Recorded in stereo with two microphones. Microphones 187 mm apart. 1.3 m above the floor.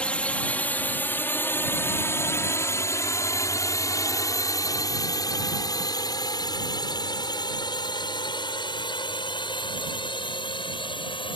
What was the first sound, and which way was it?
A drone, 5° left (ahead or behind).